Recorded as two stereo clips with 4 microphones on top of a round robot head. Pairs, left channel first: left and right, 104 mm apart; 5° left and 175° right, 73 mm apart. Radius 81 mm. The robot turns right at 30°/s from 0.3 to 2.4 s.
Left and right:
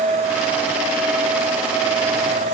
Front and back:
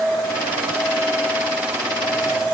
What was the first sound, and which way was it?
Only background noise.